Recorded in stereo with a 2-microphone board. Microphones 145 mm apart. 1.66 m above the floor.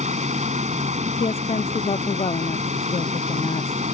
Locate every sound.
0.0 s running water: 50° right (ahead or behind)
1.2 s a woman speaking: 45° left (ahead or behind)